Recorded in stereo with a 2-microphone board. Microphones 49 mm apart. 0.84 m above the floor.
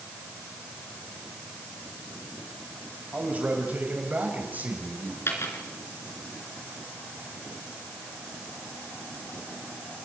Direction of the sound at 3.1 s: 30° right (ahead or behind).